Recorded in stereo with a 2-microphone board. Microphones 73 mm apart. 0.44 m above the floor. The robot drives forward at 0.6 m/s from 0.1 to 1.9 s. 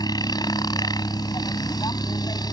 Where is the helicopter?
65° left (ahead or behind).